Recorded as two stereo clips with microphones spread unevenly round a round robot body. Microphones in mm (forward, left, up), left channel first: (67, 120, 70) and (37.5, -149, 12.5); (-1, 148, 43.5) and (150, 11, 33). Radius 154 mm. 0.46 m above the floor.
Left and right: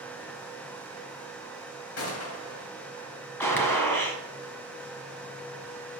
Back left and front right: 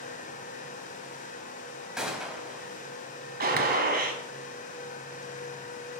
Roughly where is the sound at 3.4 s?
Ahead.